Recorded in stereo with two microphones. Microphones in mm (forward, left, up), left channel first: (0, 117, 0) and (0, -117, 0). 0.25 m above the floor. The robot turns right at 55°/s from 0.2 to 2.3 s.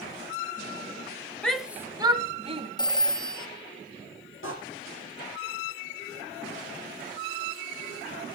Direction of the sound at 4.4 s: 60° left (ahead or behind).